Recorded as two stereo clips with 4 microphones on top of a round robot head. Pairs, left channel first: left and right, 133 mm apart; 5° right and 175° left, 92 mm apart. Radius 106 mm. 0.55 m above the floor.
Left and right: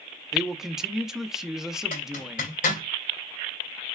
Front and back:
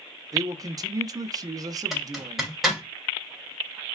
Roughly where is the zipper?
Left.